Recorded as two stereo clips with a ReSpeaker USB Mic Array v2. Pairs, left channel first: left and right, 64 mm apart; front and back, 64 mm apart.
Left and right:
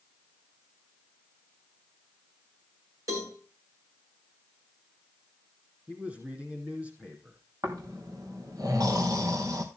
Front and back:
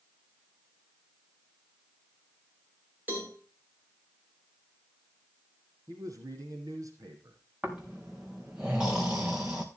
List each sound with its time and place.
3.1 s a cowbell: 115° right, 4.5 m
5.9 s a man speaking: 155° right, 4.5 m
7.6 s snoring: 105° right, 4 m